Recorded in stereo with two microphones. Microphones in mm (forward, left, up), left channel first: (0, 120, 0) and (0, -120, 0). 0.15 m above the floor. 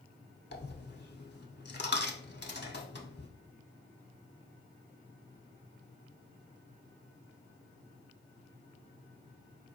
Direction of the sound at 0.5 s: 45° left (ahead or behind).